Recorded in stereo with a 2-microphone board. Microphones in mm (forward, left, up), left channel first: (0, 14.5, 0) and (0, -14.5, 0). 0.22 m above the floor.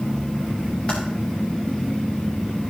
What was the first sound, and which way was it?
Typing on a keyboard, 25° left (ahead or behind).